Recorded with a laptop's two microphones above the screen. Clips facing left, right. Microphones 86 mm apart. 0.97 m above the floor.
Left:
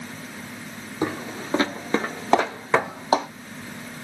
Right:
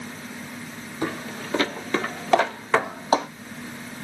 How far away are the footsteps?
About 1.3 m.